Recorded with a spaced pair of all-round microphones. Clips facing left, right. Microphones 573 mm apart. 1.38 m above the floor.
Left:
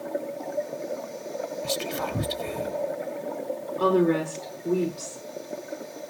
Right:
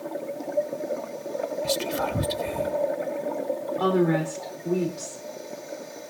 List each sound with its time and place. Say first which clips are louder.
1.6 s whispering: right 2 dB; 10° right (ahead or behind), 0.5 m
3.8 s a woman speaking: left 1 dB; 15° right (ahead or behind), 4.5 m